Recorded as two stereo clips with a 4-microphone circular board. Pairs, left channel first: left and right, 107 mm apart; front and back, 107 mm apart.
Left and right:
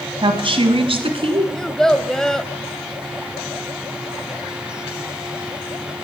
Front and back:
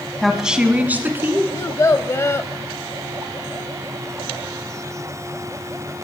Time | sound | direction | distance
0.2 | a woman speaking | 90° right | 1.5 m
1.5 | a child speaking | 15° left | 0.6 m